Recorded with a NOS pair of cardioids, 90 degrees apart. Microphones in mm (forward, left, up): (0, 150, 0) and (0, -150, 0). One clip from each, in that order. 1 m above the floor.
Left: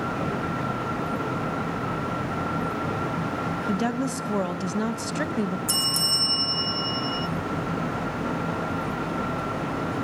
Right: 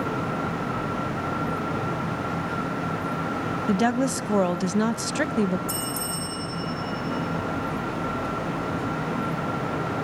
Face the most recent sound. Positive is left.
turn(degrees=55)